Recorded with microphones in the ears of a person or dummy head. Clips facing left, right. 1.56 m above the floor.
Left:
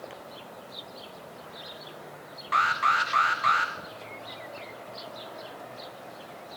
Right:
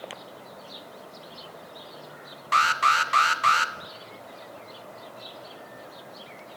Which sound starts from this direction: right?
An alarm, at 2.5 s.